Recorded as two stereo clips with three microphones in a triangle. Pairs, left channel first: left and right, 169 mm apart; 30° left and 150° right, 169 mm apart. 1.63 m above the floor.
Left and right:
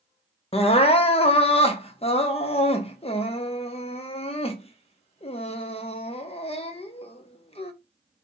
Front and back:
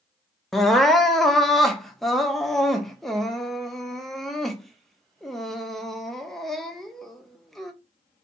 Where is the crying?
120° left, 0.8 m.